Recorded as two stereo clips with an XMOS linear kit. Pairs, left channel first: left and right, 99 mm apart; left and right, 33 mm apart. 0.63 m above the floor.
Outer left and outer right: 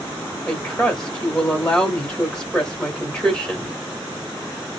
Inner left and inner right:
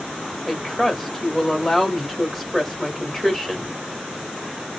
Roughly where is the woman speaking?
Centre.